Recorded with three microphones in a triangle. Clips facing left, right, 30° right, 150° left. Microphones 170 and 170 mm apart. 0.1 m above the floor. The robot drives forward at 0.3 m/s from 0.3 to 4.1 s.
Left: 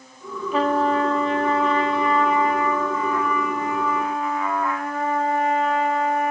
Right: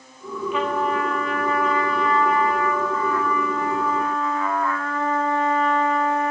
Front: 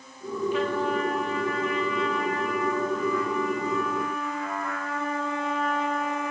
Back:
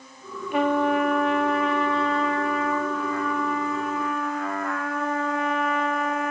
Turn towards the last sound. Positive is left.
turn(degrees=165)